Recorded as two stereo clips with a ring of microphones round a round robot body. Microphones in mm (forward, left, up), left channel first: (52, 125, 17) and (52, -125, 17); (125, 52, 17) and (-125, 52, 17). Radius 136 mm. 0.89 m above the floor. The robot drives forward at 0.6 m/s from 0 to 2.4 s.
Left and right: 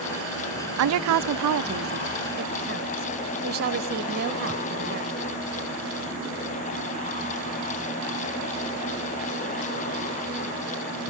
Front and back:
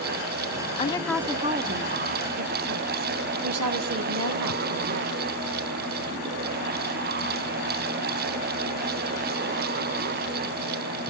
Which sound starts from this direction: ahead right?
A woman speaking, at 0.8 s.